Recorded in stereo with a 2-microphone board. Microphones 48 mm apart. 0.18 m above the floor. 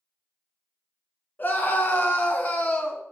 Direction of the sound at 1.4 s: 40° left (ahead or behind).